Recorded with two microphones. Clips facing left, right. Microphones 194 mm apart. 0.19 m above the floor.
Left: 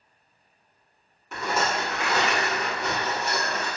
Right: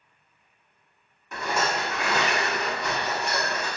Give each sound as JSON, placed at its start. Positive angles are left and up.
{"t": 1.3, "sound": "a rattle", "side_deg": 0, "distance_m": 2.0}